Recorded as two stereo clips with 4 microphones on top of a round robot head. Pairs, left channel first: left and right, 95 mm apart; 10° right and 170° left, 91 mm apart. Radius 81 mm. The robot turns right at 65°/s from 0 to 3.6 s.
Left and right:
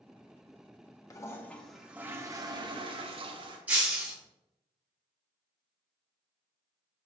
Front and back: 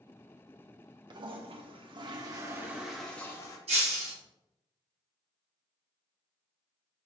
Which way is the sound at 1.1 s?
140° left.